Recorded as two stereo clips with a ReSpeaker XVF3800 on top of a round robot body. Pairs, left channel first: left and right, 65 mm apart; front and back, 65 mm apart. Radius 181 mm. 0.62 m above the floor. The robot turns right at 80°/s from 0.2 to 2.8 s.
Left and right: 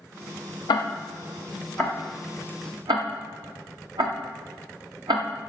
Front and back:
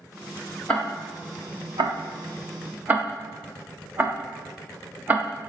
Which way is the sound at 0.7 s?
80° left.